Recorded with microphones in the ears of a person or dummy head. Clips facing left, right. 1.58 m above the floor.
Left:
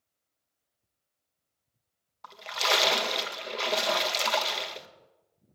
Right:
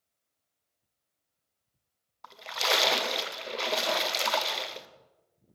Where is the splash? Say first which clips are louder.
Left 1 dB; centre (ahead or behind), 0.8 m.